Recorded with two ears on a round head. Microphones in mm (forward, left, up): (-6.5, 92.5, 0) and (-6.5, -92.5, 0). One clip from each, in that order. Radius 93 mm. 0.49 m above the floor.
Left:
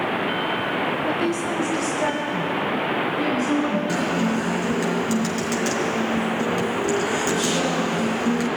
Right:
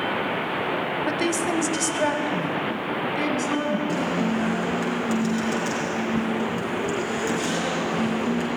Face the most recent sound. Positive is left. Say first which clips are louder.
# left 2 dB
turn(degrees=25)  # may be behind; listen again after turning